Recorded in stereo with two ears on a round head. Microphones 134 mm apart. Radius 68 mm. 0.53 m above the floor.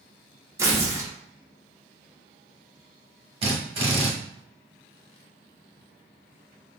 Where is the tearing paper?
20° right (ahead or behind), 0.8 m.